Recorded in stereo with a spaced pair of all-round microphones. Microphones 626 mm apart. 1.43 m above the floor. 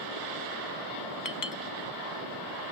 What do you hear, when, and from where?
1.2 s a clink: 30° left (ahead or behind), 1.1 m